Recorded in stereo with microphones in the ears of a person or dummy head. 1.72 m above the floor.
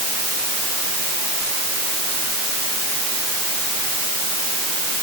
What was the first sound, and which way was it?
Only background noise.